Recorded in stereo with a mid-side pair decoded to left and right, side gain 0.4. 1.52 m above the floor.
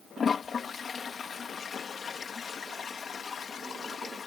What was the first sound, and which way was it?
A toilet flushing, 50° left.